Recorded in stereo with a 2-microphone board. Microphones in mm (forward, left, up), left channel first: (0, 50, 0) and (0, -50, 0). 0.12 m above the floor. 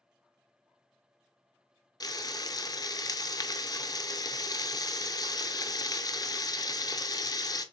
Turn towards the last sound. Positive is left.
turn(degrees=40)  # may be behind; listen again after turning